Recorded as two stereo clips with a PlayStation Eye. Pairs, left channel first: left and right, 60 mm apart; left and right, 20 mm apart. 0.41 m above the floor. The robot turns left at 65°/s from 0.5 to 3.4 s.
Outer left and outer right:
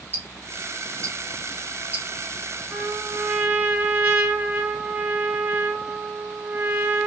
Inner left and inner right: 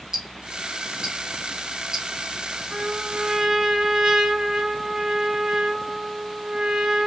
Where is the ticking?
30° right (ahead or behind), 0.8 m; by 2.0 s 20° right (ahead or behind), 0.8 m.